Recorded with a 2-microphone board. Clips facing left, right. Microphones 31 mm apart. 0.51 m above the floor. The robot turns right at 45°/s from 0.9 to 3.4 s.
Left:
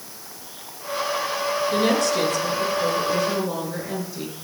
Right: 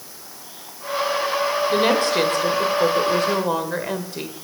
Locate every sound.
1.7 s a woman speaking: 150° right, 1.6 m; by 4.3 s 75° right, 1.6 m